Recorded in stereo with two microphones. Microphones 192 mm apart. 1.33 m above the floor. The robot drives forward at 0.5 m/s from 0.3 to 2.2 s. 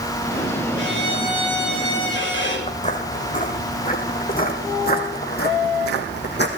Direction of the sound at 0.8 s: 85° left.